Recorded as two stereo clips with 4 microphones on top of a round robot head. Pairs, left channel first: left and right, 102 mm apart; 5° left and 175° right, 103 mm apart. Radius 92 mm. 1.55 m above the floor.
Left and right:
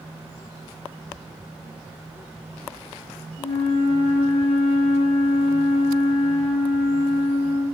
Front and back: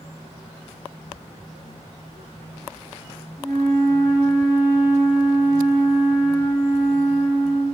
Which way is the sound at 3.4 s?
70° left.